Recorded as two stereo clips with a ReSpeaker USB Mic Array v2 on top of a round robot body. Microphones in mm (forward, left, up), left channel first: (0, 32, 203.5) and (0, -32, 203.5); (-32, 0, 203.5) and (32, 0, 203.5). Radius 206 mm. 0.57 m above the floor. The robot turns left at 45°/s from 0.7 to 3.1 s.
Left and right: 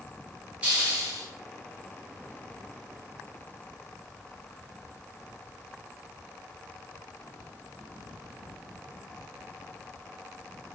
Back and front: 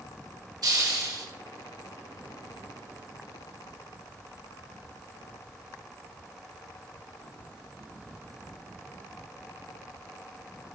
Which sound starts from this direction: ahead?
A hiss, at 0.6 s.